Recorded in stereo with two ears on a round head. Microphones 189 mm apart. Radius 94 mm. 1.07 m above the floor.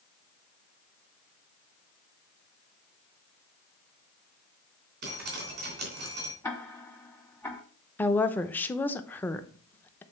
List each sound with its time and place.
5.0 s dripping: 50° right (ahead or behind), 3 m
6.4 s ticking: 10° left (ahead or behind), 1.1 m
8.0 s a woman speaking: 10° left (ahead or behind), 0.6 m